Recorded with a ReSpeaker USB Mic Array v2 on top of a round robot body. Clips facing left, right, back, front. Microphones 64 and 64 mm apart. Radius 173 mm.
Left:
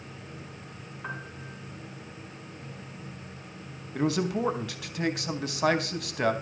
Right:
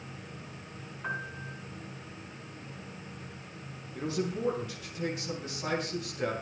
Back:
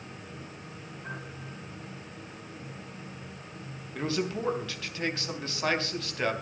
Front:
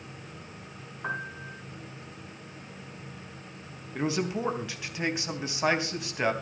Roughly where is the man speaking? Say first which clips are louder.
Left 6 dB, front 2 dB; left.